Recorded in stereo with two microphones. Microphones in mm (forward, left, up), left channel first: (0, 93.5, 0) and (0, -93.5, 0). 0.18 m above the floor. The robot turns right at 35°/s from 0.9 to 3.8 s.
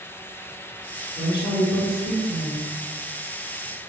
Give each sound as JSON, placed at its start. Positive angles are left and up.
{"t": 1.2, "sound": "a woman speaking", "azimuth_deg": 135, "distance_m": 1.3}